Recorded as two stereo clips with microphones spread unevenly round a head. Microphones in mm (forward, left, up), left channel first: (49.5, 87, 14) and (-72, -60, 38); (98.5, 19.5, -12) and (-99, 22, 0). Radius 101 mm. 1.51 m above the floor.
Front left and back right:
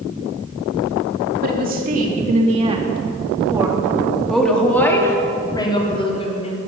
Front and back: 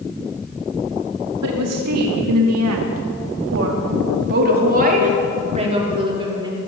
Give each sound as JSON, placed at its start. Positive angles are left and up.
{"t": 1.4, "sound": "a woman speaking", "azimuth_deg": -170, "distance_m": 4.5}